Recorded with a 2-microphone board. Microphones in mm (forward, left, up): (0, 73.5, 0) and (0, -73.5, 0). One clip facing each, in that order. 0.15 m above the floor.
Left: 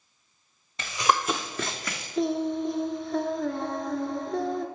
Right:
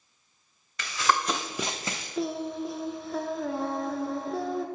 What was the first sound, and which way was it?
Running footsteps, 30° left (ahead or behind).